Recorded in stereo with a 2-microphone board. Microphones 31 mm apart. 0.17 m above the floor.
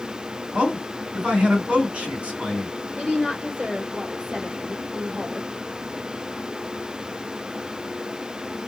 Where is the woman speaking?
55° right (ahead or behind), 2 m.